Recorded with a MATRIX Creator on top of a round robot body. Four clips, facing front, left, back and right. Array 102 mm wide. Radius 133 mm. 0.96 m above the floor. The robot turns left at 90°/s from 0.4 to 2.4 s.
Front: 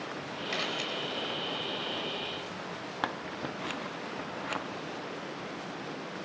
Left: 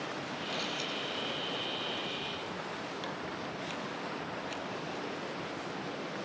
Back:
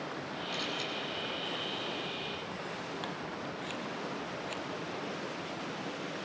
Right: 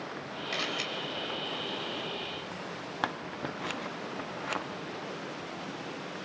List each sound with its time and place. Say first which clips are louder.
0.5 s a camera shutter: right 4 dB, front 4 dB; 40° right, 4.5 m; by 0.9 s 75° right, 4.5 m
3.0 s scissors: right 4 dB, front 4 dB; 60° right, 0.7 m